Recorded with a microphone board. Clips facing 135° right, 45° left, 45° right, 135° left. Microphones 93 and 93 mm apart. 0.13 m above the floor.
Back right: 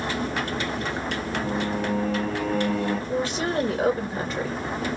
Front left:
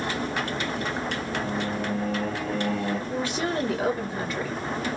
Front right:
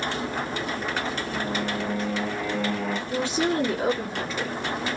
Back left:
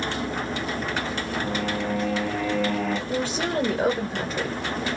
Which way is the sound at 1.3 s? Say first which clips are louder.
Back right 3 dB, back left 2 dB; 120° right.